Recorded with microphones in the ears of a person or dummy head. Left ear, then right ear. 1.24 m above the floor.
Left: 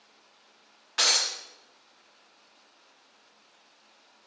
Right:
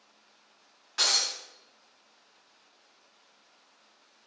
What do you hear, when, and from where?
1.0 s breaking glass: 20° left (ahead or behind), 1.0 m